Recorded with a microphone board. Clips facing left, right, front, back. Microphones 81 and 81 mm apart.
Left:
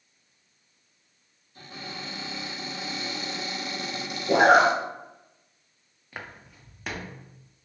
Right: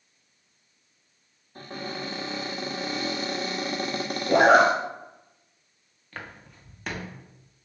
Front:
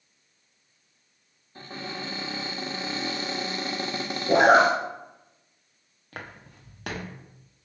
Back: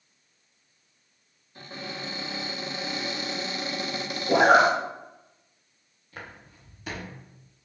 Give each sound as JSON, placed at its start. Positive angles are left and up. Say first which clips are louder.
{"t": 1.6, "sound": "a cupboard door", "louder": "right 5 dB, front 1 dB", "azimuth_deg": -55, "distance_m": 1.7}
{"t": 4.3, "sound": "a zipper", "louder": "right 1 dB, front 1 dB", "azimuth_deg": 25, "distance_m": 3.0}
{"t": 6.1, "sound": "footsteps", "louder": "even, front 2 dB", "azimuth_deg": 10, "distance_m": 1.9}